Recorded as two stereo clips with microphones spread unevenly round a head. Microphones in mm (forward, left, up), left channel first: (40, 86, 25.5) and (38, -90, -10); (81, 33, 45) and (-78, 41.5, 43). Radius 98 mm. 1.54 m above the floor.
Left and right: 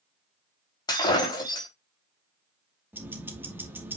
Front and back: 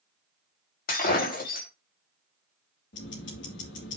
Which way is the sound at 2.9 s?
10° right.